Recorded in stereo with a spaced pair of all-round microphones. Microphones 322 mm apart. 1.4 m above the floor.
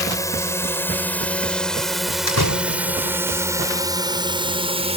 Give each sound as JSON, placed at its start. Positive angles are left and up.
{"t": 0.0, "sound": "a drone", "side_deg": 10}
{"t": 2.3, "sound": "a door slam", "side_deg": 80}